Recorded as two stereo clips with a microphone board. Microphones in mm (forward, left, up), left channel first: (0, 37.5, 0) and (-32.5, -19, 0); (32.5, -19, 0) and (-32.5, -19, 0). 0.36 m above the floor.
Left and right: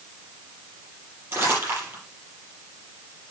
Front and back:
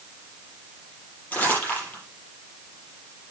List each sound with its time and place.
1.3 s crumpling: 65° right, 7 m